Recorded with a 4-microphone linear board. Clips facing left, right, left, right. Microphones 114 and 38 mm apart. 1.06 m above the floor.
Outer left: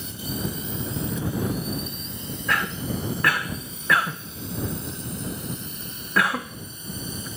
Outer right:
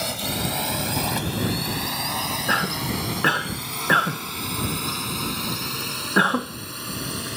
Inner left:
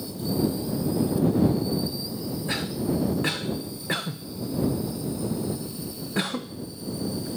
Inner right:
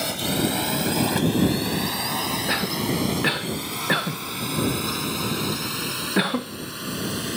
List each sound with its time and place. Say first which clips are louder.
0.0 s a drone: outer right 3 dB, inner right 2 dB; 75° right (ahead or behind); by 7.4 s 70° right (ahead or behind)
2.5 s a cough: even, even; 25° right (ahead or behind)